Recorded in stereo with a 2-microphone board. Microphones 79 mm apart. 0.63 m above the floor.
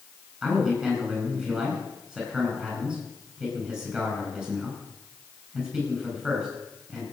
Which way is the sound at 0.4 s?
15° right (ahead or behind).